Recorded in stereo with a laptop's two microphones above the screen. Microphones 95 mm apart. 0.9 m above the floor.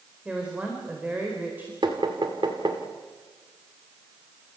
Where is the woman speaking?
10° right (ahead or behind), 4.5 m; by 1.7 s 20° right (ahead or behind), 4.5 m.